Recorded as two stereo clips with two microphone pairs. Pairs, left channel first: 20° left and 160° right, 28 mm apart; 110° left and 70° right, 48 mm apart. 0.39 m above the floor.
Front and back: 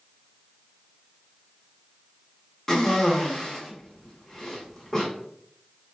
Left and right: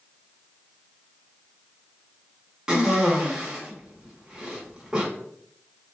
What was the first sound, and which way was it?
A cough, 25° right.